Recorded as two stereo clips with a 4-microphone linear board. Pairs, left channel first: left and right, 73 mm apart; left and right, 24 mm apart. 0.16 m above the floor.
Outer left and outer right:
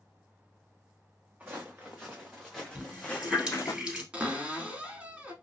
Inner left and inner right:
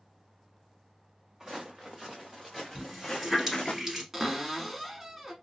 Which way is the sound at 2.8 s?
10° right (ahead or behind).